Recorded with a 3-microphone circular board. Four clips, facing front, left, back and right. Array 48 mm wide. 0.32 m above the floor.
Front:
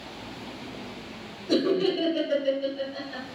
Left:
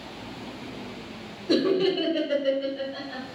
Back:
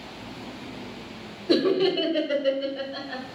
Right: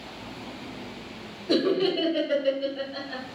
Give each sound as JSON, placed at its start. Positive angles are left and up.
{"t": 1.5, "sound": "laughter", "azimuth_deg": -165, "distance_m": 1.0}